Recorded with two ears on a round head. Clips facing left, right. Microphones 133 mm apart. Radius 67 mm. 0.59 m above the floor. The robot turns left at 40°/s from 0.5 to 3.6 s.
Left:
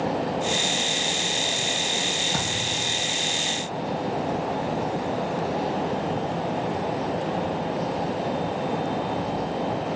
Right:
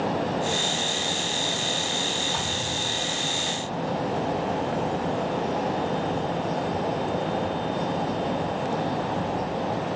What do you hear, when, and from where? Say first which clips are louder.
2.3 s a thud: left 1 dB; 50° left (ahead or behind), 4.5 m; by 2.9 s 30° left (ahead or behind), 4.5 m